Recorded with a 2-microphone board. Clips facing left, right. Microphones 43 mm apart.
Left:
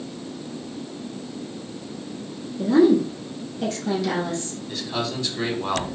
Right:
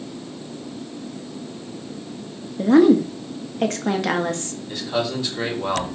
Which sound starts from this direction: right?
A woman speaking, at 2.6 s.